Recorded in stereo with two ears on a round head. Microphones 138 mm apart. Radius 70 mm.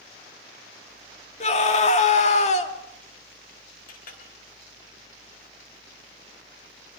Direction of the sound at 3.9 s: 65° left (ahead or behind).